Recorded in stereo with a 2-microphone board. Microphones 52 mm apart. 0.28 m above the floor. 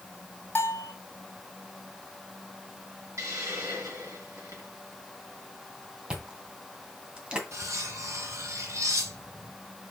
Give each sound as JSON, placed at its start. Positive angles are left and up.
{"t": 0.6, "sound": "a bell", "side_deg": 40, "distance_m": 2.0}
{"t": 3.2, "sound": "a hiss", "side_deg": -70, "distance_m": 3.5}
{"t": 6.1, "sound": "chewing", "side_deg": -20, "distance_m": 2.0}
{"t": 7.5, "sound": "cutlery clinking", "side_deg": -65, "distance_m": 1.9}